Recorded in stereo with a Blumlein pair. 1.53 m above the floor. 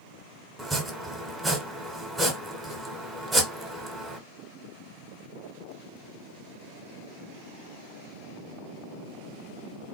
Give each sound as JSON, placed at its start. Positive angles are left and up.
{"t": 0.6, "sound": "chopping", "azimuth_deg": -10, "distance_m": 0.9}